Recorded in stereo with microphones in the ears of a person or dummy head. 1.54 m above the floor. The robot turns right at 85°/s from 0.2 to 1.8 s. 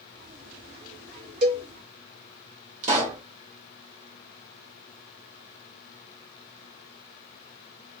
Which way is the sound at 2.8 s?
40° right (ahead or behind).